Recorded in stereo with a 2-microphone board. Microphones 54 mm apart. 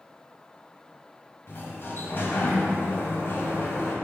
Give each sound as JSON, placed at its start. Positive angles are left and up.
{"t": 1.5, "sound": "a sliding door", "side_deg": 45, "distance_m": 1.2}